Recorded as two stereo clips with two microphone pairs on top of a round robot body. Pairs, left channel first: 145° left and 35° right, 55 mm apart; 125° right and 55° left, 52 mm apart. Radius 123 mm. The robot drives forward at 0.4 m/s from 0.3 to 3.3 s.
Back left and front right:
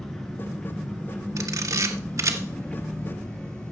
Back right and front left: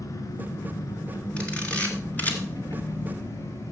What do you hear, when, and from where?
0.0 s an engine running: 140° right, 3 m; by 3.7 s 150° right, 4 m
1.4 s a camera shutter: 55° right, 2.0 m; by 3.7 s 80° right, 1.7 m